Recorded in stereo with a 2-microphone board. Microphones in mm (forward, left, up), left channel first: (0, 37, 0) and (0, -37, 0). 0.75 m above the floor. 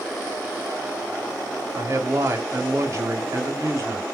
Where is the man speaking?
45° right (ahead or behind), 1.4 m.